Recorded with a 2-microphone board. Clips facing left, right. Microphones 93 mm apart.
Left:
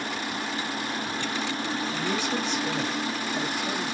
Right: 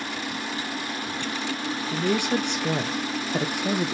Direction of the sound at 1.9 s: 55° right (ahead or behind).